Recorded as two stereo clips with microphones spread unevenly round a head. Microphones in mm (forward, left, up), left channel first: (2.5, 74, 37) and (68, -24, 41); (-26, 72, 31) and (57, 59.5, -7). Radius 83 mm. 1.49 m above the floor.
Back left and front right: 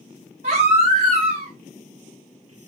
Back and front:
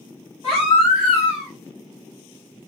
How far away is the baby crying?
About 3 m.